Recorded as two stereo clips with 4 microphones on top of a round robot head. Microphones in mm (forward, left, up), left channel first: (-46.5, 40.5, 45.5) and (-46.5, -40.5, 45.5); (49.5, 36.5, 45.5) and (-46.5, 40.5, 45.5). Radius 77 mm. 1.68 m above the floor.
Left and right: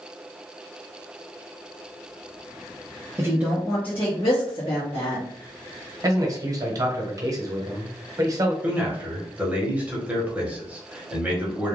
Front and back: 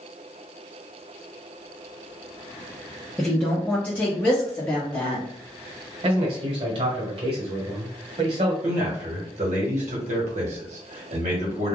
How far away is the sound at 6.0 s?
About 1.1 m.